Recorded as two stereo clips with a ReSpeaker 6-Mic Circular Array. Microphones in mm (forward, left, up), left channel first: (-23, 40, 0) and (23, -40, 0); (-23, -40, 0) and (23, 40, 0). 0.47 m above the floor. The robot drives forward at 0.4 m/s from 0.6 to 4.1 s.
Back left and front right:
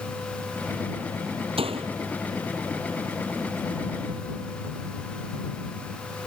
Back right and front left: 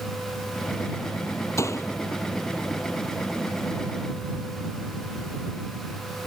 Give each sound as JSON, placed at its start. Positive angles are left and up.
{"t": 1.6, "sound": "a door slam", "azimuth_deg": -60}